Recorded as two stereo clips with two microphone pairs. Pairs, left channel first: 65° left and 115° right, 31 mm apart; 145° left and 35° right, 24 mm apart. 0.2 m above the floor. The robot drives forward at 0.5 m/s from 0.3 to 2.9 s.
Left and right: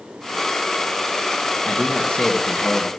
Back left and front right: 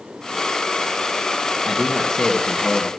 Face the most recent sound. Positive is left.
turn(degrees=105)